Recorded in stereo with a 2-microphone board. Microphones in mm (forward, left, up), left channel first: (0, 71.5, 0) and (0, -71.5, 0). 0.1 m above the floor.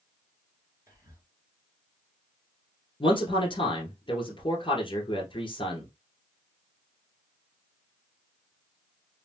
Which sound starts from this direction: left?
A man speaking, at 3.0 s.